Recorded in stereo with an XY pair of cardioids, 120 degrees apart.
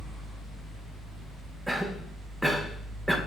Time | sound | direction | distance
0.0 | a fan | 35° right | 2 m
1.7 | a cough | 5° right | 0.7 m